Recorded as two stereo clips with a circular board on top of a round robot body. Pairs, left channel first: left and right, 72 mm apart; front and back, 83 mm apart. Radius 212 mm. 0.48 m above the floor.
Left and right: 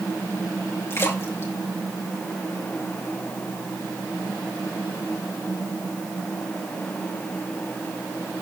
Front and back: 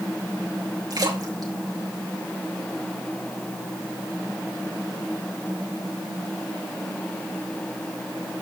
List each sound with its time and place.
0.9 s a splash: 145° left, 3.5 m